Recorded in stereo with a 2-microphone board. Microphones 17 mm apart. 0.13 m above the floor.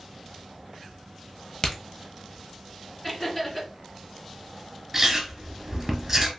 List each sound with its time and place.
1.6 s a crack: 40° left (ahead or behind), 1.0 m
3.0 s laughter: 20° left (ahead or behind), 2.0 m
4.9 s chewing: 15° right (ahead or behind), 1.3 m